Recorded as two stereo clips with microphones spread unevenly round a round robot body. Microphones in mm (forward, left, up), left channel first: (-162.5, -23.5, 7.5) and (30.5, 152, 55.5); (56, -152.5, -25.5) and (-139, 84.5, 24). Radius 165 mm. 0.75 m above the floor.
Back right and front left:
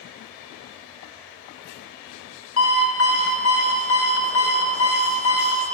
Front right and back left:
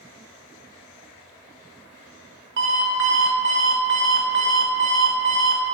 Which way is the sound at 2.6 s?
175° right.